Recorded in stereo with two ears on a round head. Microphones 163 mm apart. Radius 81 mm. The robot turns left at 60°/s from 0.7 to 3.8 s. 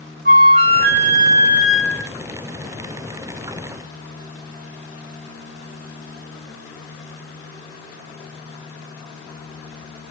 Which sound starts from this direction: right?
A flute, at 0.2 s.